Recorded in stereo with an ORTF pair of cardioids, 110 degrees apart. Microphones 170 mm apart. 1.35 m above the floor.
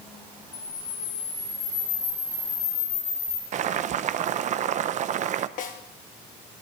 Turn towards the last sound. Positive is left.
turn(degrees=55)